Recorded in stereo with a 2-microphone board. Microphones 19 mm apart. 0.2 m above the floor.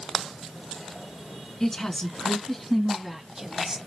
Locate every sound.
1.6 s a woman speaking: 25° left (ahead or behind), 2 m; by 3.8 s 35° right (ahead or behind), 1.3 m